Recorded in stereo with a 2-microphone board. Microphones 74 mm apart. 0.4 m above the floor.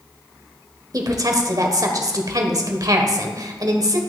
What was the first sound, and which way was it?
A woman speaking, 50° right (ahead or behind).